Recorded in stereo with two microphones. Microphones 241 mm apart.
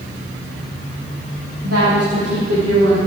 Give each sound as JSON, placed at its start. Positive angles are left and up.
{"t": 1.6, "sound": "a woman speaking", "side_deg": -75, "distance_m": 7.5}